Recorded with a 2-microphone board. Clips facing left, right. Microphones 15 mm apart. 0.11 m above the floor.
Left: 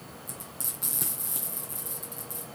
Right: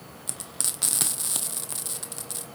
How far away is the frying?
About 0.8 m.